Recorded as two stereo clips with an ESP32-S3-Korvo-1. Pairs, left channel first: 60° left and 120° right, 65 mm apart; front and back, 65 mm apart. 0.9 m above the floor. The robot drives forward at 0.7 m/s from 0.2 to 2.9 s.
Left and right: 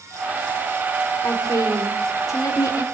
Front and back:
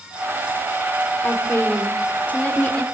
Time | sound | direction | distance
1.2 | a woman speaking | 50° left | 3.5 m